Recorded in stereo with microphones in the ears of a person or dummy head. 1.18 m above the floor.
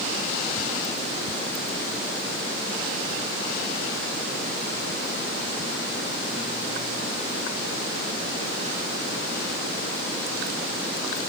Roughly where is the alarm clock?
I don't hear an alarm clock.